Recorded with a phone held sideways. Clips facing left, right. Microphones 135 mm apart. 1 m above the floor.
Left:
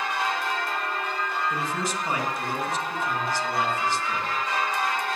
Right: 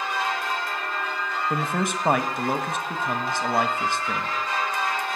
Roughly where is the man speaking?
Right.